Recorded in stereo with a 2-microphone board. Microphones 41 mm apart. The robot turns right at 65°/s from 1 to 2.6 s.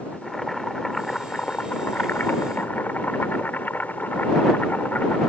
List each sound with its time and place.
0.1 s boiling: 15° left; by 5.3 s 120° left